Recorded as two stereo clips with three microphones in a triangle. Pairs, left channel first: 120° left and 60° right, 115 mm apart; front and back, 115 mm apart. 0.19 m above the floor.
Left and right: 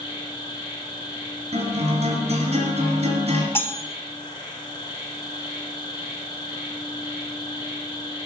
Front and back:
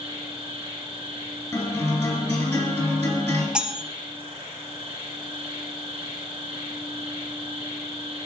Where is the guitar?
70° right, 2.5 m.